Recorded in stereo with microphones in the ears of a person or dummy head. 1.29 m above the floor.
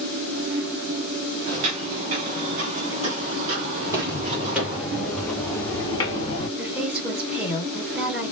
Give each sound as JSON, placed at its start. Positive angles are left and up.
{"t": 1.5, "sound": "footsteps", "side_deg": -40, "distance_m": 1.8}
{"t": 3.8, "sound": "footsteps", "side_deg": -20, "distance_m": 2.0}
{"t": 6.6, "sound": "a woman speaking", "side_deg": -10, "distance_m": 5.0}